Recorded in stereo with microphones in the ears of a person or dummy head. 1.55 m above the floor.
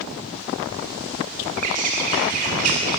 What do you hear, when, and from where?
1.6 s a bird: 45° right (ahead or behind), 1.8 m